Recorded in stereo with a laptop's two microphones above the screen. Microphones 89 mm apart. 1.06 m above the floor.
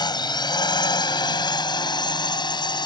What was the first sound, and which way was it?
A drone, 55° left (ahead or behind).